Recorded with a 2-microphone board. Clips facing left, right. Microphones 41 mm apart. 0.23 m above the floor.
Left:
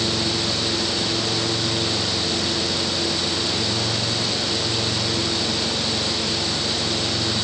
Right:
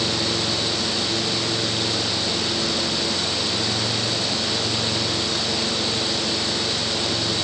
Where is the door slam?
No door slam in this recording.